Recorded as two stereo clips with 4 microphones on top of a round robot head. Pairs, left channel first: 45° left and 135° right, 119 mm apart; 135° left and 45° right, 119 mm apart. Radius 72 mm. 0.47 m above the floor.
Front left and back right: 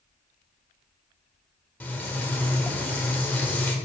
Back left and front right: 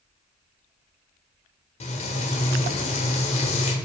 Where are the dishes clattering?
I don't hear dishes clattering.